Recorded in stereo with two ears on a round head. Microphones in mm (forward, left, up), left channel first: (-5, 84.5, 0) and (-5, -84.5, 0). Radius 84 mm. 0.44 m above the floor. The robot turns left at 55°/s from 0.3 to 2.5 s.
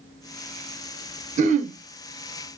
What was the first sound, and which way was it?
Throat clearing, 40° right (ahead or behind).